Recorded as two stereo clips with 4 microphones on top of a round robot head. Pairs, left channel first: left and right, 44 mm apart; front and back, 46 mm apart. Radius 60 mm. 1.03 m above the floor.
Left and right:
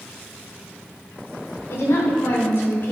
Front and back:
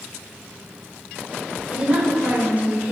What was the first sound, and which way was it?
A woman speaking, 110° left.